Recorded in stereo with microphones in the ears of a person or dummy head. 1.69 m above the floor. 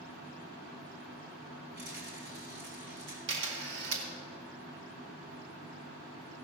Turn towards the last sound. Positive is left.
turn(degrees=-70)  # may be behind; listen again after turning